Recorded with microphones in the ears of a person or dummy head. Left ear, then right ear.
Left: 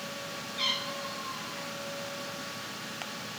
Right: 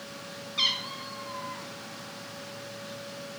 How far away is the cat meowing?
About 1.9 m.